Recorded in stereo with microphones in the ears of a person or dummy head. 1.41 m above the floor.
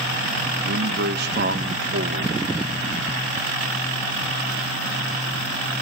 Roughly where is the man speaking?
Right.